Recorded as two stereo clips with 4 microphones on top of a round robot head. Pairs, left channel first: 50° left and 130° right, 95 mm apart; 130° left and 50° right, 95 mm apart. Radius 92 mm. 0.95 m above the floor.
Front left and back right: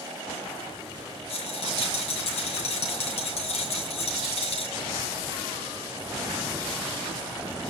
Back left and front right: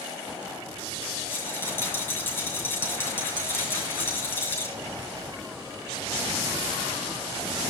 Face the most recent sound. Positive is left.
turn(degrees=65)